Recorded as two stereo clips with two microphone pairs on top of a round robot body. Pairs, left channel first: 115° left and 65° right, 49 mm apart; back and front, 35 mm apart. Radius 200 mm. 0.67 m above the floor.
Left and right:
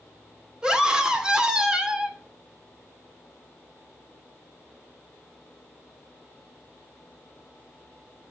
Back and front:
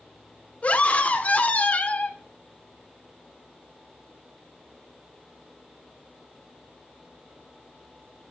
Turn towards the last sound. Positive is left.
turn(degrees=-140)